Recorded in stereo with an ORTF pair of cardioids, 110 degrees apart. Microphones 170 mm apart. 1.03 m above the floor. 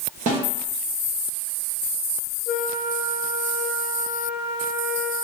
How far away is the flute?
About 0.5 m.